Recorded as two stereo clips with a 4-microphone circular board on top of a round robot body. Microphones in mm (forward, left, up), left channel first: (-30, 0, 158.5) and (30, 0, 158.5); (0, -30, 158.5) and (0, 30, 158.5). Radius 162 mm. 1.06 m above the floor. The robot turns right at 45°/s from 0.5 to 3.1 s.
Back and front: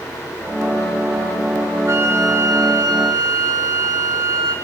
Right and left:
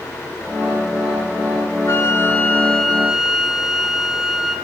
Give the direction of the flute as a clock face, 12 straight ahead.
2 o'clock.